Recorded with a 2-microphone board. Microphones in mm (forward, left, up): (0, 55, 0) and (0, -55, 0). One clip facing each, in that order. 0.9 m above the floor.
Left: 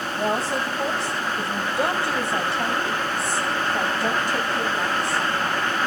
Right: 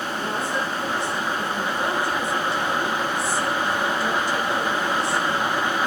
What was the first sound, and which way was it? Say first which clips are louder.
A woman speaking: left 4 dB; 80° left.